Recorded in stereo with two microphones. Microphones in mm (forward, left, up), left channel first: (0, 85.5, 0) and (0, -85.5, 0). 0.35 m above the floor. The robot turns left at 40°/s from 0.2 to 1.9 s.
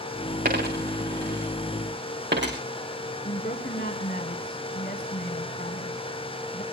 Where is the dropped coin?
50° right (ahead or behind), 5 m; by 2.6 s 70° right (ahead or behind), 5 m.